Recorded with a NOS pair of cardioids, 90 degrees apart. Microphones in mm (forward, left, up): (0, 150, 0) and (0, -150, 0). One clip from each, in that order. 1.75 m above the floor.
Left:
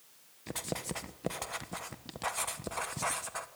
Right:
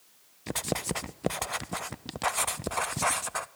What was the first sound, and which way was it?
Writing, 40° right.